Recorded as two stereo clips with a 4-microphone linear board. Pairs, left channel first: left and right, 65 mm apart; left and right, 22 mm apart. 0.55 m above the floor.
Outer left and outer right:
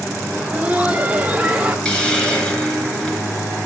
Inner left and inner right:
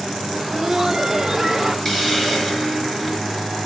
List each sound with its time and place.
0.3 s laughter: 20° right (ahead or behind), 1.5 m; by 1.8 s 15° right (ahead or behind), 1.9 m
1.9 s a hiss: 15° left (ahead or behind), 2.5 m